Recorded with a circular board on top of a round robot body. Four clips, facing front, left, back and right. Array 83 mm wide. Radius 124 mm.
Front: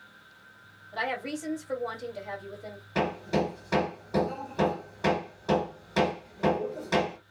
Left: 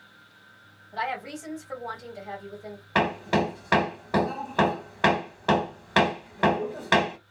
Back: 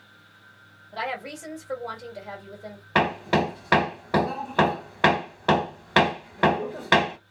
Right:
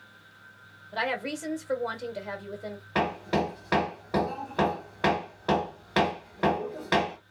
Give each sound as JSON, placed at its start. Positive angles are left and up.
{"t": 0.9, "sound": "a woman speaking", "azimuth_deg": -100, "distance_m": 2.0}
{"t": 3.0, "sound": "hammering", "azimuth_deg": 165, "distance_m": 0.8}